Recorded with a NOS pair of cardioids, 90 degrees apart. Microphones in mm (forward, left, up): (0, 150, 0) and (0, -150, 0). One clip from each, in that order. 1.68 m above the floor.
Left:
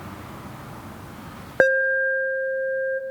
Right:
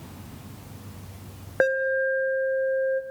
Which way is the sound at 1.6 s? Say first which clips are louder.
Left 4 dB; 25° left.